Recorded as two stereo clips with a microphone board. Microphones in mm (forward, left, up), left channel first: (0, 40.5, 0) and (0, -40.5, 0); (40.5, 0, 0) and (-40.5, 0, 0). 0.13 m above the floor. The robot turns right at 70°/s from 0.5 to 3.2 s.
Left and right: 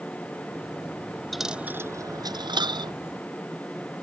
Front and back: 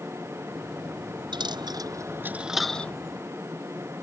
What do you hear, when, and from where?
1.3 s a dropped coin: straight behind; by 2.9 s 70° right